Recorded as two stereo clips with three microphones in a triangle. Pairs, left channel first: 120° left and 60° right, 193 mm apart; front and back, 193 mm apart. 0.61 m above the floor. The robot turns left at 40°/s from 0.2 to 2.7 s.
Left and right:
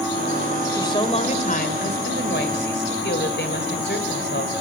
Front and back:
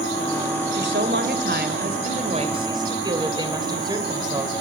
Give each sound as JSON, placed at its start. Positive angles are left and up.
{"t": 0.7, "sound": "a woman speaking", "azimuth_deg": -170, "distance_m": 3.0}